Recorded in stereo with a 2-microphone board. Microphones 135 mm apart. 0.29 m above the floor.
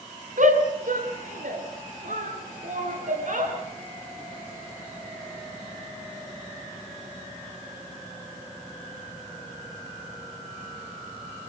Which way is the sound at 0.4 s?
70° right (ahead or behind).